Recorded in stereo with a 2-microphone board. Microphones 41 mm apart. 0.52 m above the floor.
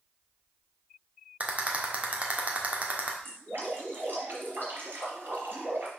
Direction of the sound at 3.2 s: 55° right (ahead or behind).